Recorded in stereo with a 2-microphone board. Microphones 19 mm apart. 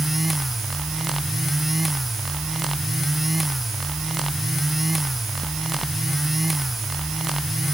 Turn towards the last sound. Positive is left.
No sound to turn to.